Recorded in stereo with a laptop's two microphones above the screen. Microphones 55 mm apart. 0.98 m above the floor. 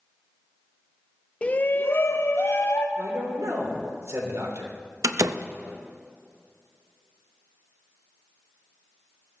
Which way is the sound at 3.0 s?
75° right (ahead or behind).